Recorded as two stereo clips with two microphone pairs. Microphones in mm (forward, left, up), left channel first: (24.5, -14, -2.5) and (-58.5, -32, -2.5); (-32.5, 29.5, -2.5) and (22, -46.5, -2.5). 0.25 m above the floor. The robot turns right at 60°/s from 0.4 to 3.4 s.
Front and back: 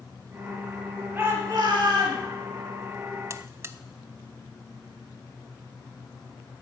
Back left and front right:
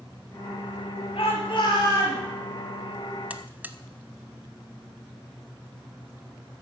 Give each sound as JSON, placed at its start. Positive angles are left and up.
{"t": 1.1, "sound": "a shout", "azimuth_deg": 130, "distance_m": 4.5}
{"t": 3.3, "sound": "a buzzer", "azimuth_deg": -125, "distance_m": 0.7}